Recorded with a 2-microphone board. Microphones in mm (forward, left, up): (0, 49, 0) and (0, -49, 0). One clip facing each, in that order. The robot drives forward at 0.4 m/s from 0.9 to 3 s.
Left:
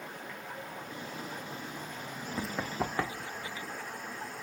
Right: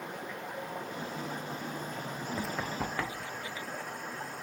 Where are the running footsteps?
Centre (ahead or behind), 0.5 m; by 3.7 s 30° left (ahead or behind), 1.5 m.